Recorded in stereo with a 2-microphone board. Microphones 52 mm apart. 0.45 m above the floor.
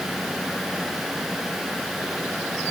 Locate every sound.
Only background noise.